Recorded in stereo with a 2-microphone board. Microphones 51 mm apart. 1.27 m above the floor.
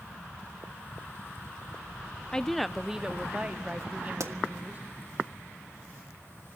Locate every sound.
2.3 s a woman speaking: 15° left (ahead or behind), 0.6 m; by 4.8 s 35° right (ahead or behind), 1.7 m
4.2 s a pop: 65° right (ahead or behind), 1.5 m